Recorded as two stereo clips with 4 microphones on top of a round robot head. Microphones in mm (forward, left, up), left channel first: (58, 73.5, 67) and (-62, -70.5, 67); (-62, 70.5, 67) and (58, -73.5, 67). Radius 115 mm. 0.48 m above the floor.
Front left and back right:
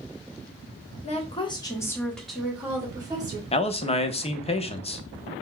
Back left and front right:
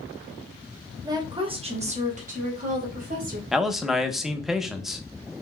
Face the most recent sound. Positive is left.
turn(degrees=35)